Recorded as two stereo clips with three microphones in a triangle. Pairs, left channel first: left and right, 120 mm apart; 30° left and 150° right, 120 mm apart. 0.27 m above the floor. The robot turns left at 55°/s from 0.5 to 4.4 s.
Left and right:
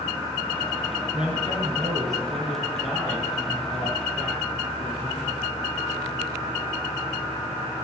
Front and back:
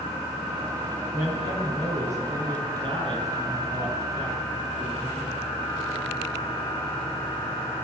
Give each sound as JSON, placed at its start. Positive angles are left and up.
{"t": 1.1, "sound": "a man speaking", "azimuth_deg": -90, "distance_m": 3.5}